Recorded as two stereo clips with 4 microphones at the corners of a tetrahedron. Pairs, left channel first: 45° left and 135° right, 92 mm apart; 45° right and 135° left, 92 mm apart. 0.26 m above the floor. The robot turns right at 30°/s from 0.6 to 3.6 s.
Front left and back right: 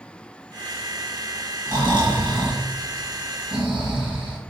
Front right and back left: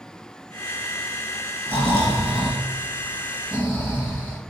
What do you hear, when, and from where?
1.7 s snoring: 170° right, 2 m; by 4.4 s 110° right, 2 m